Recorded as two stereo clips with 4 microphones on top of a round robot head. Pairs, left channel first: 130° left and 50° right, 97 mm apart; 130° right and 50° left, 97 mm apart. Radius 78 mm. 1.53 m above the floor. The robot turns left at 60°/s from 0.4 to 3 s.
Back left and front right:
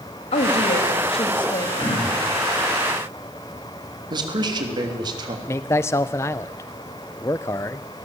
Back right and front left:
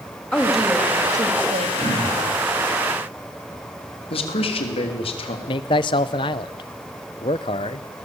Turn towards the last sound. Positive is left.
turn(degrees=-170)